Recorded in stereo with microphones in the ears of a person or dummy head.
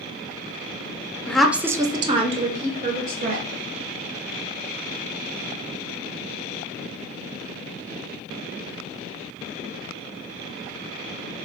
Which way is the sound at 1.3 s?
Centre (ahead or behind).